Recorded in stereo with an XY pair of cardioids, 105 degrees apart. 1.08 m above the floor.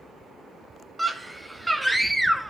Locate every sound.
1.0 s a scream: 10° right, 1.3 m